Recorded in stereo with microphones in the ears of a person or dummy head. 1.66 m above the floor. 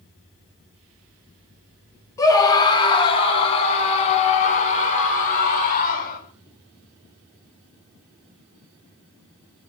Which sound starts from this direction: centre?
A scream, at 2.2 s.